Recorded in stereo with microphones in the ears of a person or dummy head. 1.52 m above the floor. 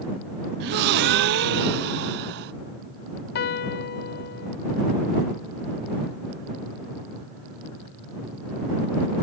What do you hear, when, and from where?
0.6 s a gasp: 60° right (ahead or behind)
3.4 s a piano: 55° left (ahead or behind)